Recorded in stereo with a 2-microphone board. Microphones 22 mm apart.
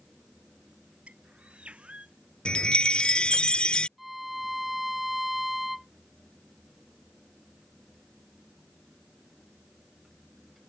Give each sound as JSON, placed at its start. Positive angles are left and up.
{"t": 1.1, "sound": "a bird", "side_deg": -75}
{"t": 2.5, "sound": "a chime", "side_deg": 60}
{"t": 4.0, "sound": "a violin", "side_deg": -10}